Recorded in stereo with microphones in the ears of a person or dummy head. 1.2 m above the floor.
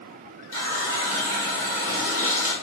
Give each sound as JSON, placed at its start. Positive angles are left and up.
{"t": 0.5, "sound": "a running tap", "side_deg": -20, "distance_m": 2.0}